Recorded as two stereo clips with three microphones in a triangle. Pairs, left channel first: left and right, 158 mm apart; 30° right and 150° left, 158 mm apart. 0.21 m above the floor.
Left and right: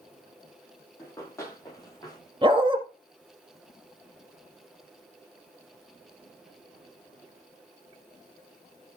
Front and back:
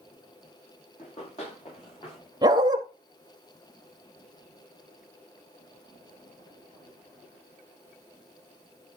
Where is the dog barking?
145° right, 1.9 m.